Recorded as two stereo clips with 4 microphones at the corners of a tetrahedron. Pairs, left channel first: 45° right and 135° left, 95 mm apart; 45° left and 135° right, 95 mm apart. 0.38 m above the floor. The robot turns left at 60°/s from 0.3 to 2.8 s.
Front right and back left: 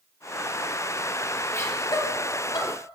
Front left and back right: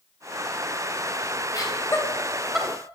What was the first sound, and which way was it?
Laughter, 10° left.